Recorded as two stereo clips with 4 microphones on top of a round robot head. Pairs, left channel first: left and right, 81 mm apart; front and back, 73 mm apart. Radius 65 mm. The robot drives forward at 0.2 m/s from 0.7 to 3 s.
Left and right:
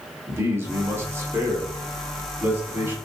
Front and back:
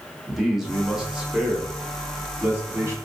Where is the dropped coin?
No dropped coin in this recording.